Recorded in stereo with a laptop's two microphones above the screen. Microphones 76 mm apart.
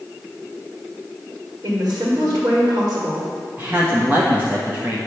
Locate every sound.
1.6 s a woman speaking: 55° right (ahead or behind), 2.5 m
3.6 s a woman speaking: 25° right (ahead or behind), 1.3 m